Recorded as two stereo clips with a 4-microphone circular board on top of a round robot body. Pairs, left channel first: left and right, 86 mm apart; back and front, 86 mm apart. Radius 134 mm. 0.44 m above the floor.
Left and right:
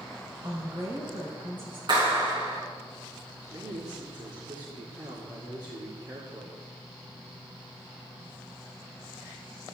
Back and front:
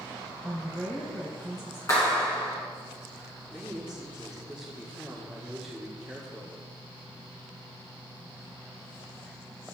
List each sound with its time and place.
0.4 s a woman speaking: 120° right, 3.5 m
1.9 s a clap: 125° right, 4.5 m
3.5 s a man speaking: 80° right, 1.9 m